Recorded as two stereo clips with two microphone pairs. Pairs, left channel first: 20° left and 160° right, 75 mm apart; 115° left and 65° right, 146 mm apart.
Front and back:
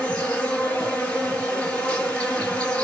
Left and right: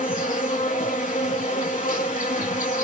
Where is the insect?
100° left, 6 m.